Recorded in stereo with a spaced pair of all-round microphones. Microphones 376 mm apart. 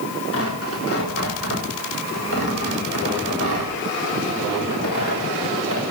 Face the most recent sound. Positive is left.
turn(degrees=35)  # may be behind; listen again after turning